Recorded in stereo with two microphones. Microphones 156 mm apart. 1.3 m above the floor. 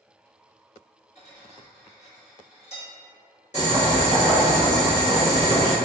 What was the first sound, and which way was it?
Cutlery clinking, 45° left (ahead or behind).